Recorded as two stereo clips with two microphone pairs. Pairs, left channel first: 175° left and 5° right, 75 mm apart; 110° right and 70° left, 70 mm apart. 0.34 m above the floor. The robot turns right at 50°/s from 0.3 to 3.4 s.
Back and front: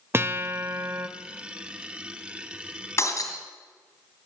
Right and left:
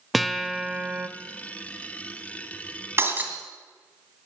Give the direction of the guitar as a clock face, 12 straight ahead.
1 o'clock.